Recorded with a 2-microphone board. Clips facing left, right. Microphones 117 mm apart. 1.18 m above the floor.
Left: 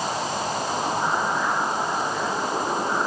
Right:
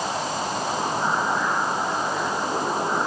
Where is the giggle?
No giggle in this recording.